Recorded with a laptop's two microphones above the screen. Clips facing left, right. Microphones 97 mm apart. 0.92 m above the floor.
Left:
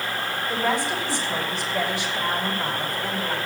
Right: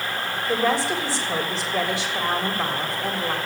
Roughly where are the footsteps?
No footsteps in this recording.